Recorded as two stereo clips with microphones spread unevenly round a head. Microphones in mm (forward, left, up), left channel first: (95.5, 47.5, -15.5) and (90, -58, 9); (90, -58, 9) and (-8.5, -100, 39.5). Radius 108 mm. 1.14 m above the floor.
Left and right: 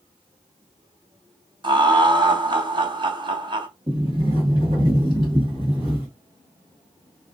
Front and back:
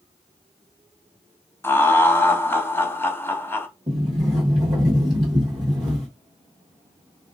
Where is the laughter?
50° right, 1.1 m.